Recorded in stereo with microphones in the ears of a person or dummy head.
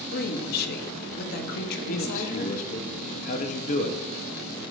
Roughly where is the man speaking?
Left.